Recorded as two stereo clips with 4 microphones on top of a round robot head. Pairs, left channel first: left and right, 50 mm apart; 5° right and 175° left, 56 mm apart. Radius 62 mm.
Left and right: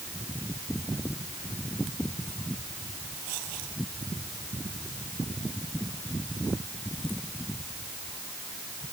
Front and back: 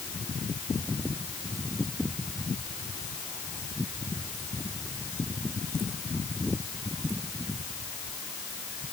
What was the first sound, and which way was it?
Only background noise.